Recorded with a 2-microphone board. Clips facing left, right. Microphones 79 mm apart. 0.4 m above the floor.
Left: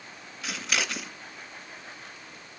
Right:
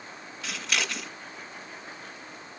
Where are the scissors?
5° left (ahead or behind), 1.4 m.